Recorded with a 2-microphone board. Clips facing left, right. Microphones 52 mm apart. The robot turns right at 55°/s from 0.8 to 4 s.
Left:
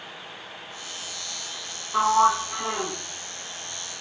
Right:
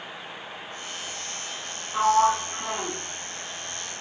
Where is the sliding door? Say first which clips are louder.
Left 1 dB; 25° left (ahead or behind), 0.7 m; by 3.0 s 10° left (ahead or behind), 0.7 m.